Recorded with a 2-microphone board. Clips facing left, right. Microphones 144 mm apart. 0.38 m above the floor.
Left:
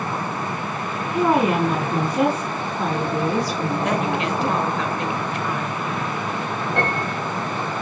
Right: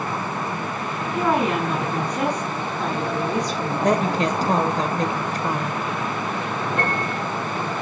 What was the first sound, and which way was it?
A woman speaking, 15° left (ahead or behind).